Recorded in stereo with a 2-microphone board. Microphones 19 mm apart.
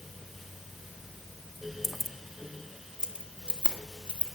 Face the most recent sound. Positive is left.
turn(degrees=-70)  # may be behind; listen again after turning